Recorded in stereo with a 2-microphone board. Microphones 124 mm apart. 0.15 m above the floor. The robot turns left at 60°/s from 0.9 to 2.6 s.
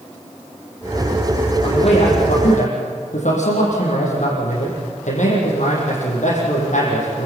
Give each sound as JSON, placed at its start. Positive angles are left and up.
{"t": 1.6, "sound": "a man speaking", "azimuth_deg": 140, "distance_m": 7.0}